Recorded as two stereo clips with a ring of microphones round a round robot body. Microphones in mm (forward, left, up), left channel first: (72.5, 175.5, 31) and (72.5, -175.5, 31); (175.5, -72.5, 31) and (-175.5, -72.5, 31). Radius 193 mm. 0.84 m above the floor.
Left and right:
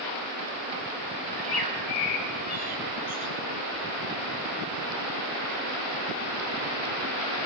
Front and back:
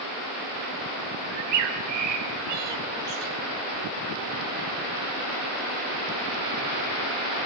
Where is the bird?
160° left, 4.5 m.